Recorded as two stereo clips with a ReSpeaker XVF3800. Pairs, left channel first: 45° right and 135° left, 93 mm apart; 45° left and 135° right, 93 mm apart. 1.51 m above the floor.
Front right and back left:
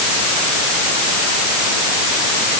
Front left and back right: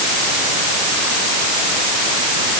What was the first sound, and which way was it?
Only background noise.